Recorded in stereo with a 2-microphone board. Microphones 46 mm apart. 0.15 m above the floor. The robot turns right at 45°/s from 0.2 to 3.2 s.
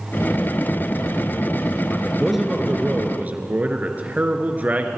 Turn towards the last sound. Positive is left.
turn(degrees=-135)